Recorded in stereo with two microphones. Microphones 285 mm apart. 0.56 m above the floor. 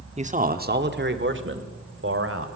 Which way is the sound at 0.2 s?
25° right (ahead or behind).